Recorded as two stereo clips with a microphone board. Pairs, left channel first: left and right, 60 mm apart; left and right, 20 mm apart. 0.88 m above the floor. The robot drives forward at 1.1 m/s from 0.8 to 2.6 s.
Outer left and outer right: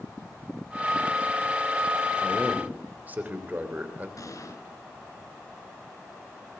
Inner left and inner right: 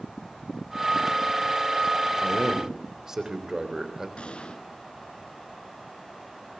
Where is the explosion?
70° left (ahead or behind), 3.5 m.